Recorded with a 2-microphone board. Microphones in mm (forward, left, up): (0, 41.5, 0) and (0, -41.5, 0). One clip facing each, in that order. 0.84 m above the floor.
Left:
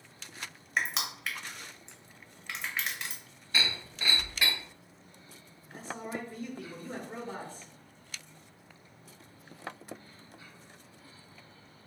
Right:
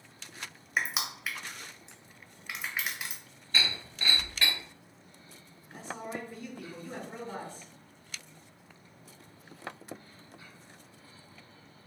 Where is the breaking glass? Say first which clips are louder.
Even; 10° left (ahead or behind), 2 m.